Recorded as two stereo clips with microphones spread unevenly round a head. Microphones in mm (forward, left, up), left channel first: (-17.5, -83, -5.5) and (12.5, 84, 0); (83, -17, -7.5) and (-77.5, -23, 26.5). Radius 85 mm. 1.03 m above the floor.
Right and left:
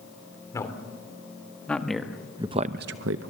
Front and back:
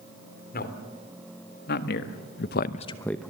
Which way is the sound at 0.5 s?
30° right.